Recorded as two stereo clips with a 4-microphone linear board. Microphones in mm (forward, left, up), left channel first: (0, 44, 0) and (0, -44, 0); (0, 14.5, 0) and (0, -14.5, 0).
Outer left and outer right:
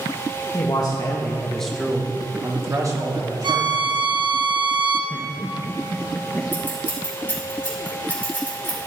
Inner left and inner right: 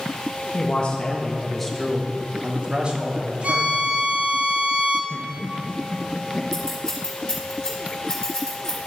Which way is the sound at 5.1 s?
10° left (ahead or behind).